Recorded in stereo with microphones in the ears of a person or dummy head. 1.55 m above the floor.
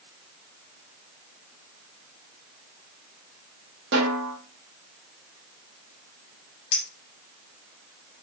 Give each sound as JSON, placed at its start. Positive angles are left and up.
{"t": 3.9, "sound": "a snare drum", "side_deg": -65, "distance_m": 1.2}
{"t": 6.7, "sound": "a clink", "side_deg": 40, "distance_m": 1.5}